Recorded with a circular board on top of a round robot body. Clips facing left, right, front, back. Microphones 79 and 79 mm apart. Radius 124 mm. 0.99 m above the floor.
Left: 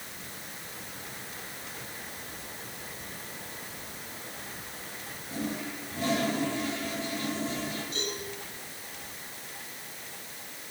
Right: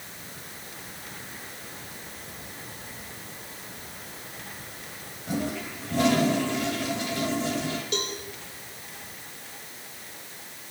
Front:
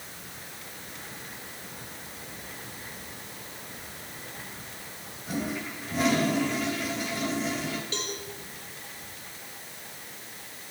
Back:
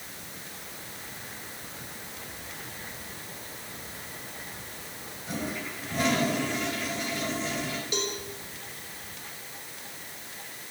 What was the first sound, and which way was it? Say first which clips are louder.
A toilet flushing: right 4 dB, front 2 dB; 85° right.